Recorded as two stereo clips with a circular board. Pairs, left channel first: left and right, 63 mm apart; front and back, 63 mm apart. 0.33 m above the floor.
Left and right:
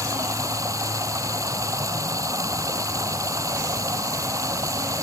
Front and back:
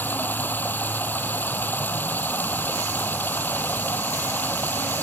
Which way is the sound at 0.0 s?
60° right.